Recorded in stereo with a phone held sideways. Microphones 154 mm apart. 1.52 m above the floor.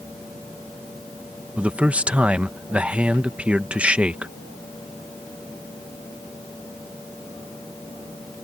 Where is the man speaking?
10° right (ahead or behind).